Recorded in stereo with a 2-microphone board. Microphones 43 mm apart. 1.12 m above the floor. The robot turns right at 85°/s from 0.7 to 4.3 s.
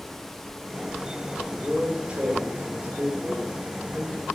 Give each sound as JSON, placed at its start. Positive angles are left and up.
{"t": 1.5, "sound": "a man speaking", "azimuth_deg": 160, "distance_m": 4.0}